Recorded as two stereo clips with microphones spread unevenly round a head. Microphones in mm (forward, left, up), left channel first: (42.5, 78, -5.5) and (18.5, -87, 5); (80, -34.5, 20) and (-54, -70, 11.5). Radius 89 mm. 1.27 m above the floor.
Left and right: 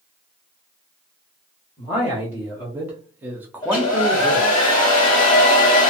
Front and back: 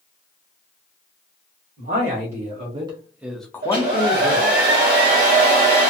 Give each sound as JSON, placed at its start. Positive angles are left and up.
{"t": 1.8, "sound": "a man speaking", "azimuth_deg": 180, "distance_m": 1.2}
{"t": 3.6, "sound": "a hair dryer", "azimuth_deg": 150, "distance_m": 0.9}